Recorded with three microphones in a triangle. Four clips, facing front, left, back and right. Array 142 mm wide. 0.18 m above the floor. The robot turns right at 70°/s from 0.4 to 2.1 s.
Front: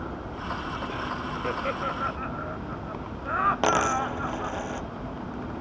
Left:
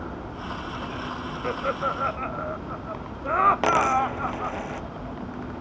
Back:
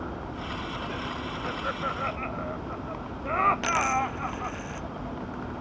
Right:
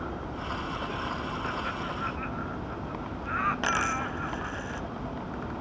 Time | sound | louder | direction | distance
1.4 | laughter | left 6 dB, front 2 dB | 60° left | ?
3.6 | a dropped coin | left 8 dB, front 2 dB | 45° left | ?